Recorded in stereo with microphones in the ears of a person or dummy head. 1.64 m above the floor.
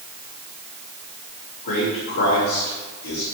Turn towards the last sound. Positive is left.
turn(degrees=60)  # may be behind; listen again after turning